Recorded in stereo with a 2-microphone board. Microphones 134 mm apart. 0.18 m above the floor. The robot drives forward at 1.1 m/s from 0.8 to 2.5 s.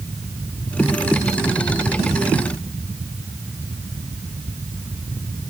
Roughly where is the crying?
No crying in this recording.